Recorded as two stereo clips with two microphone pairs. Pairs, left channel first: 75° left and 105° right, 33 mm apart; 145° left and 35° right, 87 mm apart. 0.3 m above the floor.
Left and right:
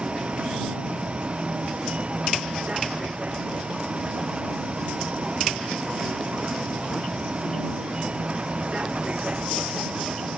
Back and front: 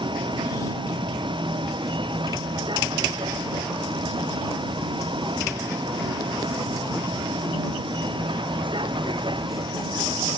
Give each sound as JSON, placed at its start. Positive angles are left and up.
{"t": 0.0, "sound": "a vehicle", "azimuth_deg": -50}